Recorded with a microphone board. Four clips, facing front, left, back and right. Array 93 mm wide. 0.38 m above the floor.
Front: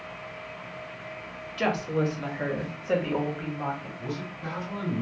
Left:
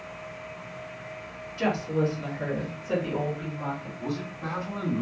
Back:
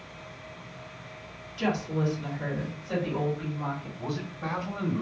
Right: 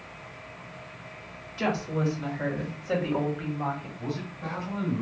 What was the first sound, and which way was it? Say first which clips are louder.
A woman speaking: left 2 dB, front 2 dB; straight ahead.